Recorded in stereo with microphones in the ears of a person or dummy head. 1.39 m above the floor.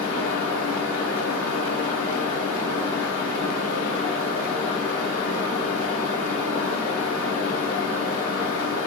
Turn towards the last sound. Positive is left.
turn(degrees=65)  # may be behind; listen again after turning